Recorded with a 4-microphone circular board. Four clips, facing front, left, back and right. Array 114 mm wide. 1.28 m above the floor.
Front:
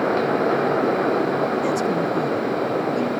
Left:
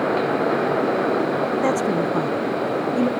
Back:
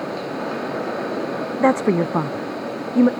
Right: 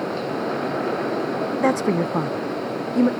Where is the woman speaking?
170° right, 0.6 m.